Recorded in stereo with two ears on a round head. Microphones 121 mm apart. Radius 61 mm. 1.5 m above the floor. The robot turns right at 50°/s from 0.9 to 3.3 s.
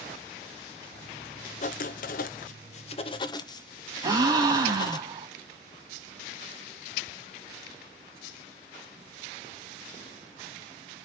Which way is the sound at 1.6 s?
65° left.